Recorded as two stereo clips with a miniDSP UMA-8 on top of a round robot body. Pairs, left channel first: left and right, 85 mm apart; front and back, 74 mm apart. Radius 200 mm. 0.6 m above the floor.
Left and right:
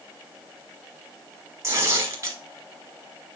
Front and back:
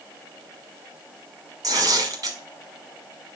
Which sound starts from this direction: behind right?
Tearing paper, at 1.6 s.